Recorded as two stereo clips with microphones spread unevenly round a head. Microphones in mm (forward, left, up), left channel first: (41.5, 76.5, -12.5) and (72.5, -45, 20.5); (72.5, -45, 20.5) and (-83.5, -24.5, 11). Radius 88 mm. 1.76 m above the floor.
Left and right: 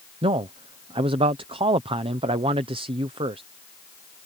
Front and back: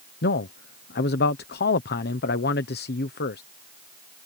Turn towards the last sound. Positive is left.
turn(degrees=-30)